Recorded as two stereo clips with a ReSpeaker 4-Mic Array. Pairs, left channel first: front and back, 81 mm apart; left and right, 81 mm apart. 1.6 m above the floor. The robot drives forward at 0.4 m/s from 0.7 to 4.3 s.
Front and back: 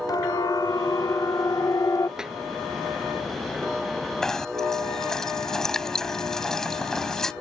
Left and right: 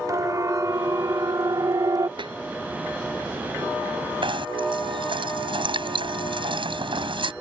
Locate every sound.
0.1 s a siren: 40° right; by 2.1 s 45° right
2.2 s a snare drum: 100° right
4.2 s knocking: 85° right